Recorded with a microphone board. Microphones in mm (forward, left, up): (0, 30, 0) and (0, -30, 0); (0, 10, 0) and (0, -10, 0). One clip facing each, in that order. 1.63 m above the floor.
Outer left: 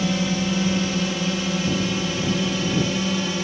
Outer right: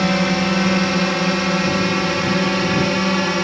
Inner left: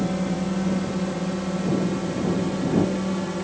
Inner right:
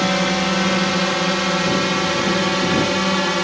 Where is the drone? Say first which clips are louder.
Outer right 5 dB, inner right 8 dB; 65° right (ahead or behind); by 3.4 s 60° right (ahead or behind).